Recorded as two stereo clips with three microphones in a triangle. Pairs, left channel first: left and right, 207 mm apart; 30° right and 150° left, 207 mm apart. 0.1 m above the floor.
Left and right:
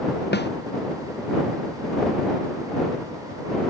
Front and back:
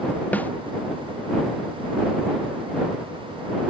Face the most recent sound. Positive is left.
turn(degrees=55)